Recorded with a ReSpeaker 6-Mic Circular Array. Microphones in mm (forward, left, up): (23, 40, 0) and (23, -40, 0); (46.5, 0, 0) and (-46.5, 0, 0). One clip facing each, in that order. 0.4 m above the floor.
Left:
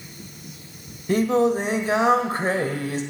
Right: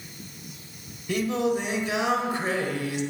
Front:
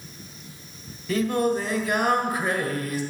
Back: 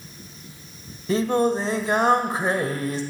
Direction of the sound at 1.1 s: 130° left.